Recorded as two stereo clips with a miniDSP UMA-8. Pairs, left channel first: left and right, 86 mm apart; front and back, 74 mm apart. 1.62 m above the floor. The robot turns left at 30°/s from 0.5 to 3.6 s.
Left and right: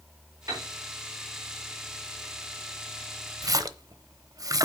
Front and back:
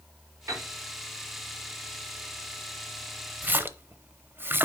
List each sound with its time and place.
0.5 s a piano: 135° right, 4.5 m; by 0.7 s 145° right, 4.5 m
3.4 s a splash: 120° right, 0.7 m; by 4.7 s 125° right, 0.7 m